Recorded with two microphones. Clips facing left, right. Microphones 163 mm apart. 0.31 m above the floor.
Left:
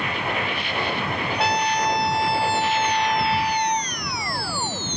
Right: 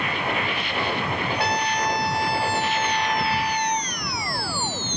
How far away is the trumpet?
About 0.6 m.